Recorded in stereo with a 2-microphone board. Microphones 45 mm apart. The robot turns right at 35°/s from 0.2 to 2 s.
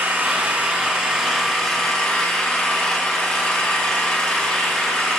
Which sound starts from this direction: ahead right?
An engine running, at 0.0 s.